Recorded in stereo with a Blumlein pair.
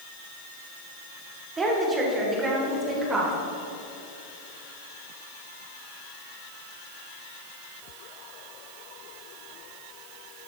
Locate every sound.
1.6 s a woman speaking: 20° right, 3 m; by 3.3 s 15° right, 4.5 m